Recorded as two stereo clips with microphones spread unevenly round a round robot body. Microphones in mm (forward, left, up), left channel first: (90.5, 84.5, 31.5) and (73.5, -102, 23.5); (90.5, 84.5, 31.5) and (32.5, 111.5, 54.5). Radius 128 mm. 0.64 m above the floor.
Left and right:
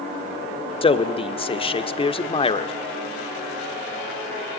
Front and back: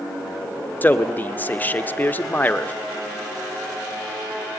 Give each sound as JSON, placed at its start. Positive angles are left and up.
{"t": 0.8, "sound": "a man speaking", "azimuth_deg": 25, "distance_m": 1.9}